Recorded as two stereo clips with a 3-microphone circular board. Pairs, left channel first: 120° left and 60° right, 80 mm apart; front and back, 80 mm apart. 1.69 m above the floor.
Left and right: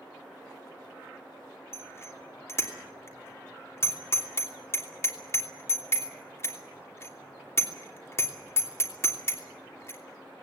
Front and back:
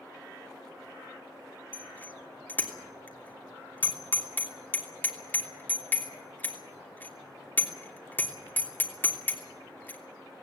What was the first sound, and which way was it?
A bicycle bell, 65° left.